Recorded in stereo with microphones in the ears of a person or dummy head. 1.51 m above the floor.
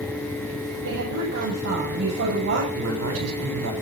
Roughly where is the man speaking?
Right.